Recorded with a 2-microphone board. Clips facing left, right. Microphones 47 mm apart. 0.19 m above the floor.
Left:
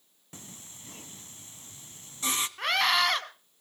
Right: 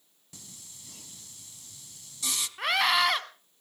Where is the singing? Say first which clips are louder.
Left 4 dB; 35° left (ahead or behind), 1.1 m.